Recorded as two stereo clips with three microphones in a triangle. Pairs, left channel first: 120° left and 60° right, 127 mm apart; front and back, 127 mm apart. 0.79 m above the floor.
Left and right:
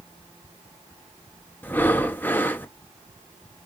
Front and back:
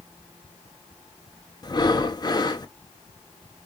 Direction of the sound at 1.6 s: 45° left.